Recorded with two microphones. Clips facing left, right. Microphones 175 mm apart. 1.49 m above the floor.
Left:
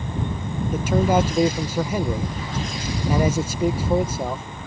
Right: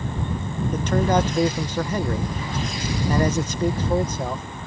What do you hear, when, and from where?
0.7 s a man speaking: 10° left (ahead or behind)